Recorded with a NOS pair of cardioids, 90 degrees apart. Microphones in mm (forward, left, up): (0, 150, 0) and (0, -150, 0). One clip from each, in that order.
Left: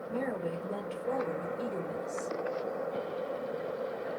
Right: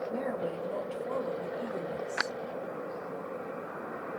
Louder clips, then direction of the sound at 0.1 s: Right 1 dB; 35° left.